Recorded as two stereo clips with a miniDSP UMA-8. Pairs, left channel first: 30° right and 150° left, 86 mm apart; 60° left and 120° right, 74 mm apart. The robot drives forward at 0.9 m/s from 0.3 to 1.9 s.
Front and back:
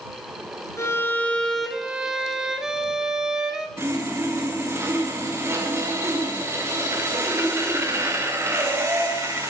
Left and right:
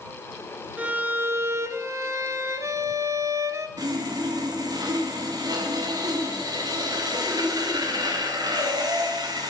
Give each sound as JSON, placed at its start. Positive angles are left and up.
{"t": 0.8, "sound": "a violin", "azimuth_deg": -60, "distance_m": 1.3}
{"t": 3.8, "sound": "sawing", "azimuth_deg": -150, "distance_m": 3.5}